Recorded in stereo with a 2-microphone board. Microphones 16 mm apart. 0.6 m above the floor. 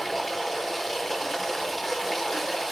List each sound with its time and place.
0.0 s running water: centre (ahead or behind), 2.5 m